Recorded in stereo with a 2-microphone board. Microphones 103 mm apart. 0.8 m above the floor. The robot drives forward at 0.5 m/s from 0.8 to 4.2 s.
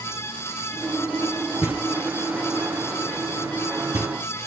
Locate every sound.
1.6 s knocking: 75° left (ahead or behind), 10 m; by 4.1 s 85° left, 9.5 m